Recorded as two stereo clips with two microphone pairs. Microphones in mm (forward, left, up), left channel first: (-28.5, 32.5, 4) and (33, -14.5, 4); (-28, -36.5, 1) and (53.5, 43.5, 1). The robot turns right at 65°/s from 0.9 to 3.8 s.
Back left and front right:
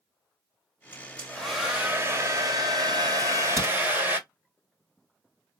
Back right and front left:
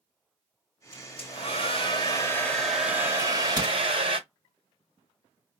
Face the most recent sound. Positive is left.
turn(degrees=10)